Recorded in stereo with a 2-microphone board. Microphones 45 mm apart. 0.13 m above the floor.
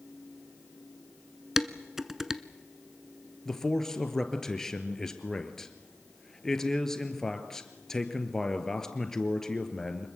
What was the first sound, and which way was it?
Dishes clattering, 5° right (ahead or behind).